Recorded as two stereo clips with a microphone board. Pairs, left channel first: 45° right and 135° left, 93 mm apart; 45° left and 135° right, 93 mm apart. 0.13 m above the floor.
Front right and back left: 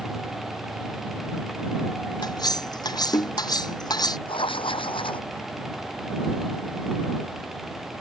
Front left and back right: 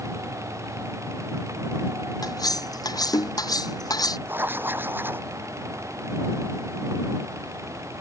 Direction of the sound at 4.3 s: 70° right.